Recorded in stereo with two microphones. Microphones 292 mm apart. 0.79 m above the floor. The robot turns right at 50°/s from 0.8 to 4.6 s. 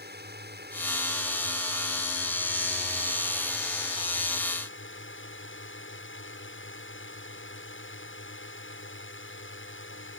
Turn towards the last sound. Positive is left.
turn(degrees=50)